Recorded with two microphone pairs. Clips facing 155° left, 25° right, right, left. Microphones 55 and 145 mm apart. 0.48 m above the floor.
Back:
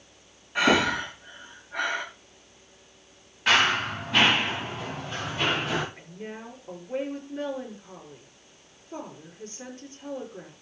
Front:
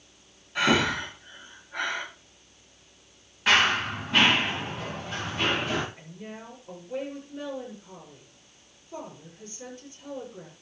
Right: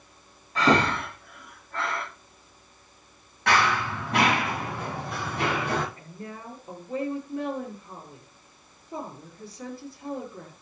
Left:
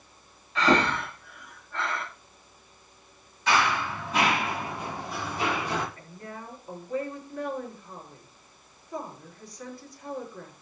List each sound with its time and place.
0.6 s breathing: 140° right, 10 m
3.5 s running footsteps: 115° right, 7.5 m
6.0 s a woman speaking: 155° right, 7 m